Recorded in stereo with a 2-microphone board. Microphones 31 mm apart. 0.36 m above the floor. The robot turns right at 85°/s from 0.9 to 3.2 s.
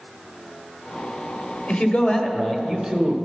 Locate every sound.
1.7 s a man speaking: 85° left, 1.1 m; by 3.1 s 150° right, 1.1 m